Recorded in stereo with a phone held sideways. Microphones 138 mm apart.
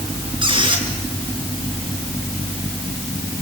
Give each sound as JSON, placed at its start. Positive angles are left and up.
{"t": 0.4, "sound": "a squeak", "side_deg": -40, "distance_m": 4.0}